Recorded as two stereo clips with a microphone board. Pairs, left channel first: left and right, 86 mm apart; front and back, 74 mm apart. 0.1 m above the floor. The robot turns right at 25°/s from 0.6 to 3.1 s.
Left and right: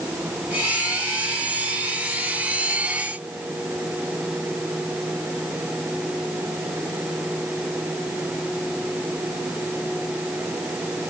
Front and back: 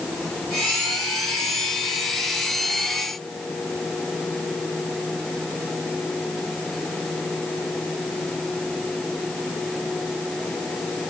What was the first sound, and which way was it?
Only background noise.